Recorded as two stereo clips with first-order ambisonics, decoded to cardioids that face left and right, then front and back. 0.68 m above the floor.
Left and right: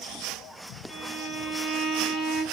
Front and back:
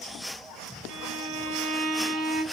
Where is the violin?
175° left, 2.5 m.